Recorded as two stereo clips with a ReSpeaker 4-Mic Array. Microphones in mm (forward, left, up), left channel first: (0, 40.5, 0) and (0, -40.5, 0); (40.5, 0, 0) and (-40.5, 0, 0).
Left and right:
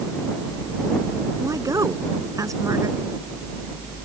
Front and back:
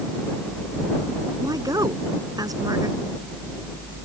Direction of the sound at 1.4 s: 140° right.